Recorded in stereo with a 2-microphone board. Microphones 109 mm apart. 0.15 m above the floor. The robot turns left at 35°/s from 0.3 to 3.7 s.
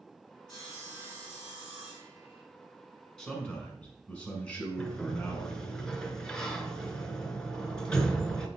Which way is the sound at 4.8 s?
5° left (ahead or behind).